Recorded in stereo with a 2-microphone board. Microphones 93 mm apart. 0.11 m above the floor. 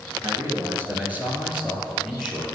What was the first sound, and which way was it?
A man speaking, 35° right (ahead or behind).